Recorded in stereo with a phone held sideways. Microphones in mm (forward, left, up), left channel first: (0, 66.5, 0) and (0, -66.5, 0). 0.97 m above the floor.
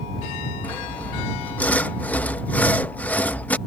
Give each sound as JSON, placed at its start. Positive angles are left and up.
{"t": 0.6, "sound": "sawing", "side_deg": 10}